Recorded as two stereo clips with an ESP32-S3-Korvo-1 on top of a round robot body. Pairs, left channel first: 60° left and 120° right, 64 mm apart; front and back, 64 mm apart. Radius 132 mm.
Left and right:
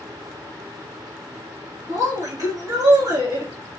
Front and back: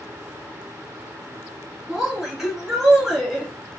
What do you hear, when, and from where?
1.9 s a woman speaking: 95° right, 1.5 m